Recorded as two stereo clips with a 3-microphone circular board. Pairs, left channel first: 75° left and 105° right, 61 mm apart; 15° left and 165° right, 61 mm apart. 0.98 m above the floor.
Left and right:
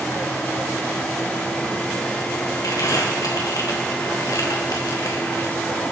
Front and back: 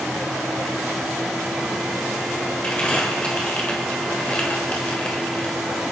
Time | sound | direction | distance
2.6 | crumpling | 85° left | 4 m